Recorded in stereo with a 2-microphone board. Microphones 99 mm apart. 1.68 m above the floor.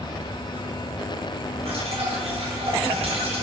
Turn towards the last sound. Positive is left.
turn(degrees=-80)